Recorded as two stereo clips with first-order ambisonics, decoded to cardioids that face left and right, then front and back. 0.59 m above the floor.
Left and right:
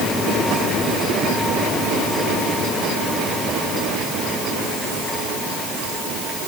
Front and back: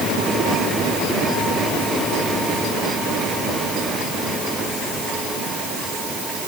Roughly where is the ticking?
I don't hear ticking.